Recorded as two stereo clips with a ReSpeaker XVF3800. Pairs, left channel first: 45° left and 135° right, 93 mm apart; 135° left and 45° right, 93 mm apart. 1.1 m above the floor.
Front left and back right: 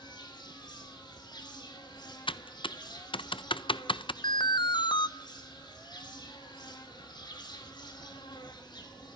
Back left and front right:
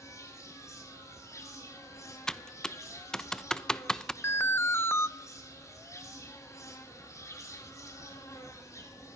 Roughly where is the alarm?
Left.